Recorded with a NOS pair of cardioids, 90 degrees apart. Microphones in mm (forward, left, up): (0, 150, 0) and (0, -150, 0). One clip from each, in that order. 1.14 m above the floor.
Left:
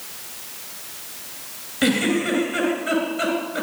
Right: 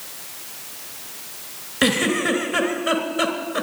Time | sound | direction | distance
1.8 | a giggle | 50° right | 3.5 m